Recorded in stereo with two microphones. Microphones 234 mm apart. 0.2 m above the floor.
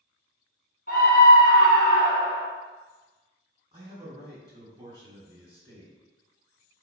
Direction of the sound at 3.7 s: 25° right (ahead or behind).